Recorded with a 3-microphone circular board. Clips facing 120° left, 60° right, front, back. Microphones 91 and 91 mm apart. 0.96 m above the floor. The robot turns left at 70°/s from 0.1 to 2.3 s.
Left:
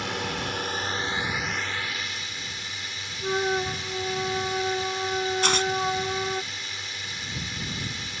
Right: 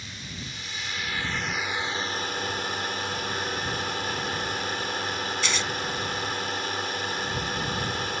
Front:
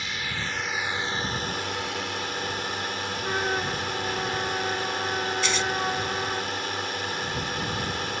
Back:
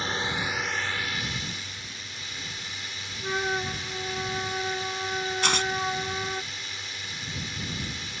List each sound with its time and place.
0.0 s a drone: 130° left; by 8.2 s 25° right
3.2 s a flute: 90° left
5.4 s tearing paper: 155° left